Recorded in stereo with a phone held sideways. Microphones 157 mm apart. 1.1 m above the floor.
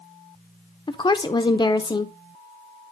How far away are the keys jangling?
I don't hear keys jangling.